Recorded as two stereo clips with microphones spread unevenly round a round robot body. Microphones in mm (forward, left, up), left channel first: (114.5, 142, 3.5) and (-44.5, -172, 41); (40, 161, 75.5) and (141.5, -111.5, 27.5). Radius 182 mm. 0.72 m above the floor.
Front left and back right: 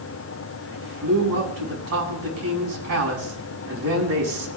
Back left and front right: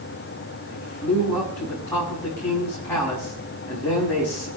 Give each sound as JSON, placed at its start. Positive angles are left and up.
{"t": 0.7, "sound": "a man speaking", "azimuth_deg": -165, "distance_m": 7.5}